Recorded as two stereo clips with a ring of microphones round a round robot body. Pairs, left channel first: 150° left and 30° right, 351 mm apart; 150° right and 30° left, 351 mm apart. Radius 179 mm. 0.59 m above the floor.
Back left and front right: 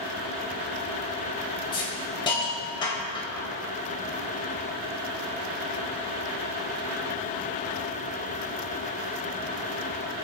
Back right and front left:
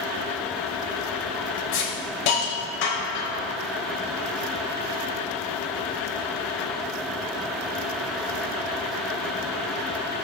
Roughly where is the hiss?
Behind right.